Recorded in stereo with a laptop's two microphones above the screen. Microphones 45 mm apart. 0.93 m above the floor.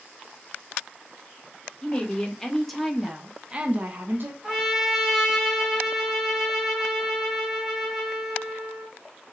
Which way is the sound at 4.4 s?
5° right (ahead or behind).